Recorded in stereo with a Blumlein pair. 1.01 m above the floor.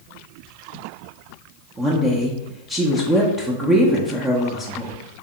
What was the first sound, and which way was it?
A woman speaking, 15° right.